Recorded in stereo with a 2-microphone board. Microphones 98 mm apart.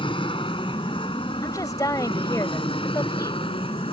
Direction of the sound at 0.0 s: 60° left (ahead or behind).